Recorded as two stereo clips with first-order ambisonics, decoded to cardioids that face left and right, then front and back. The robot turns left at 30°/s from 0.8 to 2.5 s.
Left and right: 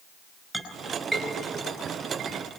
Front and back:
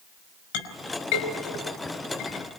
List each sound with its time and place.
0.5 s a clink: 5° left, 5 m; by 2.6 s 45° right, 5 m